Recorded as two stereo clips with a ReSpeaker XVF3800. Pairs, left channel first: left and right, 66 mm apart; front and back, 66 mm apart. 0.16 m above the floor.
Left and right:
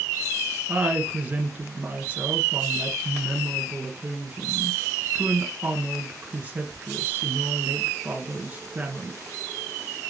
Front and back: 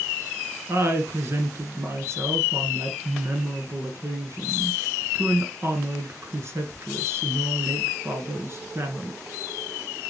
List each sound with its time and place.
0.7 s a woman speaking: 145° right, 1.9 m